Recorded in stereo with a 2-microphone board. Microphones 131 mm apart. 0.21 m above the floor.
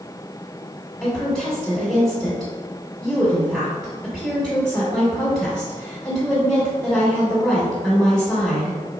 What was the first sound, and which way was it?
A woman speaking, 5° left (ahead or behind).